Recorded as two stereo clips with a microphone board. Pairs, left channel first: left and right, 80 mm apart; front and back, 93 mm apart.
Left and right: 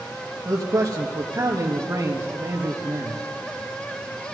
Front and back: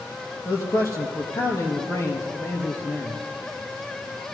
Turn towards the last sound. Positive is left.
turn(degrees=-50)